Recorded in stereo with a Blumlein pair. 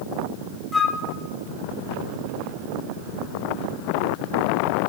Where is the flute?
5° left, 0.8 m.